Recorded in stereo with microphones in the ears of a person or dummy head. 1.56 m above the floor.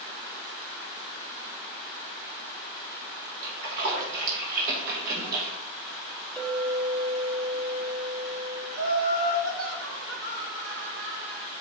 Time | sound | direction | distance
3.4 | a splash | 55° right (ahead or behind) | 0.8 m
6.4 | a clink | centre (ahead or behind) | 0.6 m
8.7 | laughter | 75° right (ahead or behind) | 1.0 m